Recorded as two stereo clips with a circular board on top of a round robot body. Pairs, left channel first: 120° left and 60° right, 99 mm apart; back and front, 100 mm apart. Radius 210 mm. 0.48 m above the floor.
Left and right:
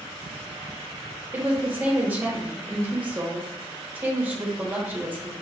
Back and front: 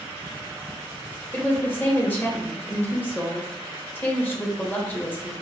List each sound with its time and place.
1.3 s a woman speaking: 120° right, 1.4 m